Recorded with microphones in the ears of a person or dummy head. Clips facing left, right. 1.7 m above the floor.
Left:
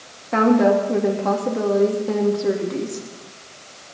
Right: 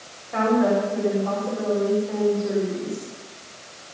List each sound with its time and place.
0.3 s a woman speaking: 85° left, 3 m